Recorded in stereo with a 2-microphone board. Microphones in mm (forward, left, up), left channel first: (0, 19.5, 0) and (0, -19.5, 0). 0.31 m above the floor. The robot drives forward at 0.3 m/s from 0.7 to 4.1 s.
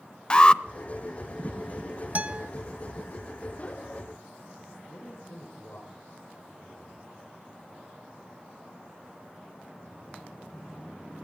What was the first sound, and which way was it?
An alarm, 25° left (ahead or behind).